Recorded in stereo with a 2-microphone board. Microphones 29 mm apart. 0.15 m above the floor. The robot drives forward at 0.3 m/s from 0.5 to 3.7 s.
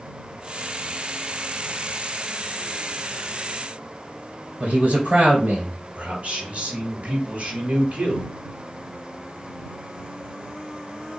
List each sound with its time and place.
4.6 s a man speaking: 60° right (ahead or behind), 2 m
6.0 s a man speaking: 50° right (ahead or behind), 2.5 m